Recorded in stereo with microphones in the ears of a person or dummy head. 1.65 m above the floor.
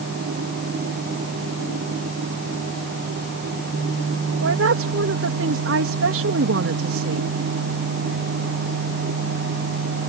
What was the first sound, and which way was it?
A woman speaking, 90° right.